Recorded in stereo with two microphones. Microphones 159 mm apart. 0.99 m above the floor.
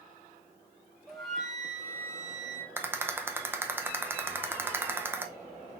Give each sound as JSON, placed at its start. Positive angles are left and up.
{"t": 1.1, "sound": "a flute", "side_deg": 0, "distance_m": 1.4}
{"t": 2.8, "sound": "a rattle", "side_deg": -15, "distance_m": 0.6}